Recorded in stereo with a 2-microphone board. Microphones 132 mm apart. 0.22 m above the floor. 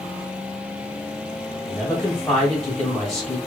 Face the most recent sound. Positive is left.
turn(degrees=5)  # may be behind; listen again after turning